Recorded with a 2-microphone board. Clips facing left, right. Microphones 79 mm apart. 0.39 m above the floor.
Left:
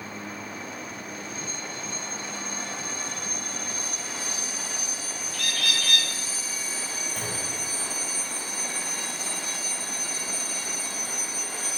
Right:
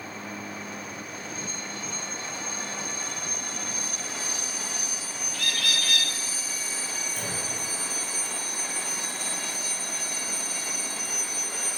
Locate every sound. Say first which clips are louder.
5.3 s a bird: even; 60° left (ahead or behind), 2 m
7.2 s a clunk: left 1 dB; 60° left (ahead or behind), 1.5 m